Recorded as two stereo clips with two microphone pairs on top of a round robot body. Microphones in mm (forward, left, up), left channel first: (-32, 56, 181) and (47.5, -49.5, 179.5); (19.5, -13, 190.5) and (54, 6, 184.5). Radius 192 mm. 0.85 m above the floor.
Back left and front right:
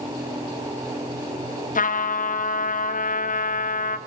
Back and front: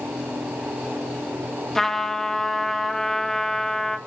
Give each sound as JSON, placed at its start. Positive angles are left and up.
{"t": 1.8, "sound": "a trumpet", "azimuth_deg": 125, "distance_m": 2.5}